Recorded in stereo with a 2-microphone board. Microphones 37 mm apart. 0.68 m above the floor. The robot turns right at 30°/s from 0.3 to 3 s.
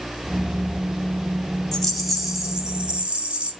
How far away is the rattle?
About 1.7 m.